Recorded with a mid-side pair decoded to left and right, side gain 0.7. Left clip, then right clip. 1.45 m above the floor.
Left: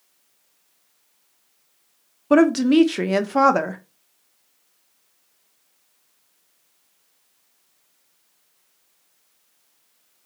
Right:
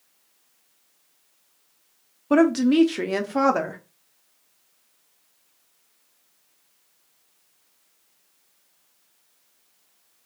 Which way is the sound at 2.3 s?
15° left.